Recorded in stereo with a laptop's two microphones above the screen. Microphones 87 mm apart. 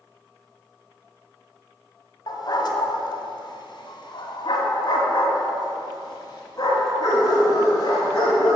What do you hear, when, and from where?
2.3 s a dog barking: 55° left (ahead or behind), 1.5 m; by 8.6 s 40° left (ahead or behind), 3.5 m